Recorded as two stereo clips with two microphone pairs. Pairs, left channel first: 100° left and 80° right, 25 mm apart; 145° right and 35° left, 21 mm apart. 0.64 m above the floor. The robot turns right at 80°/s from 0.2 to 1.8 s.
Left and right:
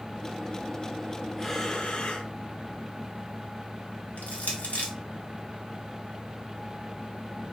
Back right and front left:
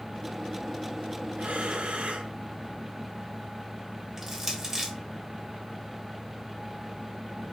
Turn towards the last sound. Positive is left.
turn(degrees=110)